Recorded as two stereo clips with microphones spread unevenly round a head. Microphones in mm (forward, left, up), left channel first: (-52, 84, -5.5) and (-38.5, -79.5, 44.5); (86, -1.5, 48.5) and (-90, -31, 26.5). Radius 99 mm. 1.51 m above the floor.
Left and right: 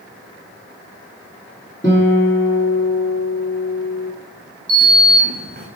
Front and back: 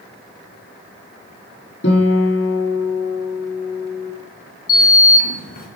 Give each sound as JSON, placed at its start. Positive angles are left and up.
{"t": 1.8, "sound": "a guitar", "azimuth_deg": 15, "distance_m": 2.5}
{"t": 4.7, "sound": "a sliding door", "azimuth_deg": -35, "distance_m": 1.8}